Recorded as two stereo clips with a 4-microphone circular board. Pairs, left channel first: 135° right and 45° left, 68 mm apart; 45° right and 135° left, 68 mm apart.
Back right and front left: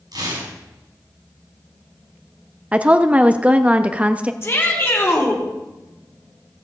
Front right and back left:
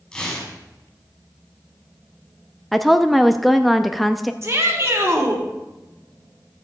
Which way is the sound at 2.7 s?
40° left.